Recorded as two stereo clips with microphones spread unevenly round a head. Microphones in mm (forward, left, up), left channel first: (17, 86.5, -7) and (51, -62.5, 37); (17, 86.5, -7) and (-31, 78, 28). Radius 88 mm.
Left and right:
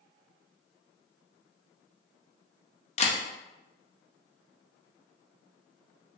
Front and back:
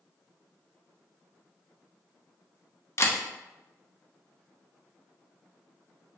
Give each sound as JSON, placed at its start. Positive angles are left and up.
{"t": 3.0, "sound": "a camera shutter", "azimuth_deg": 55, "distance_m": 0.8}